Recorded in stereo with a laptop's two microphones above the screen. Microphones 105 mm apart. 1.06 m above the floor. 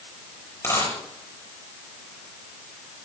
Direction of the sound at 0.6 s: 25° left (ahead or behind).